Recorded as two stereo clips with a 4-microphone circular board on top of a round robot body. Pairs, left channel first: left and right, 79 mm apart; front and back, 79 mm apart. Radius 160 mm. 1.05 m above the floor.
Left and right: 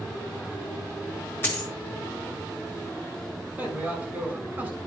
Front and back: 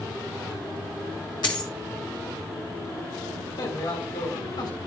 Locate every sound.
1.4 s a dropped coin: 30° left, 1.3 m
3.6 s a man speaking: 20° right, 6 m